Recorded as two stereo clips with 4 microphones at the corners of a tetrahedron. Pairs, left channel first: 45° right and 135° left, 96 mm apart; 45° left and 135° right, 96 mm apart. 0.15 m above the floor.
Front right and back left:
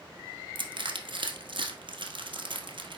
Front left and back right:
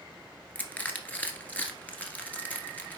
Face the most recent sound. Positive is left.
turn(degrees=120)